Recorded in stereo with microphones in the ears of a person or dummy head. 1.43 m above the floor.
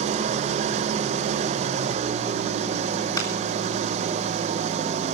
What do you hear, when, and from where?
0.0 s an engine running: 40° right (ahead or behind), 0.9 m
3.2 s a clap: 20° left (ahead or behind), 3.5 m